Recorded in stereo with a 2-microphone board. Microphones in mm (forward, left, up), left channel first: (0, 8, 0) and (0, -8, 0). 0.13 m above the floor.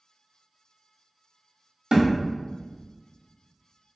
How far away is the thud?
About 1.3 m.